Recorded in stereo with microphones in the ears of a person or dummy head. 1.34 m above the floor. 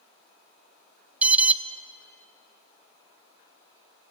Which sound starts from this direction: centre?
An alarm, at 1.2 s.